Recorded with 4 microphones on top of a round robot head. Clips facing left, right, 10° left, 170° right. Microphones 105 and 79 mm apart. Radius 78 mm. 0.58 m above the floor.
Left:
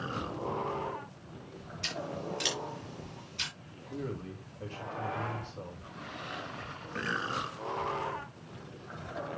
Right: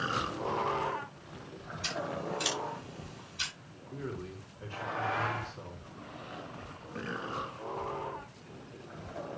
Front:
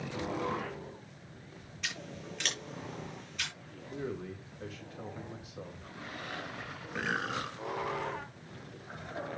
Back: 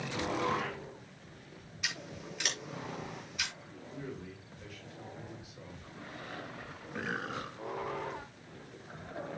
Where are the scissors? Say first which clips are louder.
Right 2 dB, even; 110° left, 6.5 m.